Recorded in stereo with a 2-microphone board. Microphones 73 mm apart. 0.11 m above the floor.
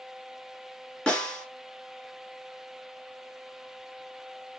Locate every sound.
1.1 s a snare drum: 15° left (ahead or behind), 1.5 m